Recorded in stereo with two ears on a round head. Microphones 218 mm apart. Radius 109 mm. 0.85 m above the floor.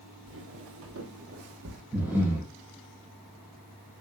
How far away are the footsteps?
About 1.6 m.